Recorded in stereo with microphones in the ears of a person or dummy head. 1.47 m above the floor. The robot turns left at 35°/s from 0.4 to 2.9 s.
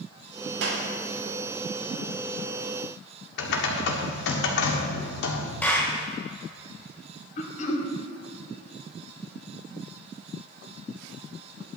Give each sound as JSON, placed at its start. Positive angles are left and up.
{"t": 0.6, "sound": "a clap", "side_deg": -70, "distance_m": 2.0}
{"t": 3.4, "sound": "typing on a keyboard", "side_deg": 60, "distance_m": 1.7}
{"t": 5.6, "sound": "a clap", "side_deg": 10, "distance_m": 1.9}
{"t": 7.4, "sound": "throat clearing", "side_deg": 40, "distance_m": 1.8}